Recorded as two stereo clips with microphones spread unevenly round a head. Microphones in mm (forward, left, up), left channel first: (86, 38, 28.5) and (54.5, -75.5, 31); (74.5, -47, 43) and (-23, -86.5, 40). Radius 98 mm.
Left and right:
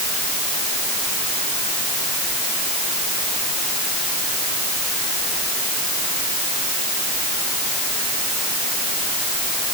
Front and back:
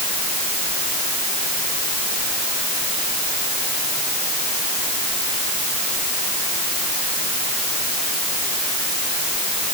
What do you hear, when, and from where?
Only background noise.